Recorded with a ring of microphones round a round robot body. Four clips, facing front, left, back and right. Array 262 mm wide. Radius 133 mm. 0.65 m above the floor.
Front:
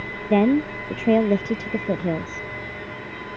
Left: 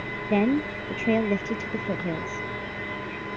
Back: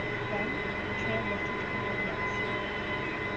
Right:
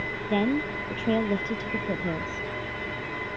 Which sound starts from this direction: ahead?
A woman speaking, at 0.3 s.